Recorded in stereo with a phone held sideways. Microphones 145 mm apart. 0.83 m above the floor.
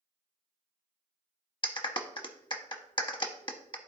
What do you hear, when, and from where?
1.6 s a clap: 35° left (ahead or behind), 0.8 m